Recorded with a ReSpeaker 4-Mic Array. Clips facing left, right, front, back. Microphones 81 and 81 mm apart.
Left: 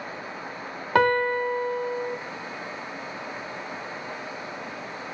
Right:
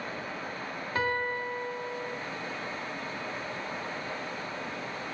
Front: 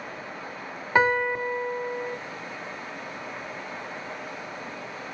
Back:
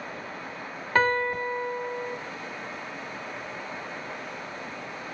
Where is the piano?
75° left, 0.7 m.